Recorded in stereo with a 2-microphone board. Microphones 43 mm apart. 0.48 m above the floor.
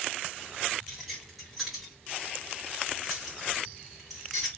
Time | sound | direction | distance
0.9 | keys jangling | 5° right (ahead or behind) | 2.5 m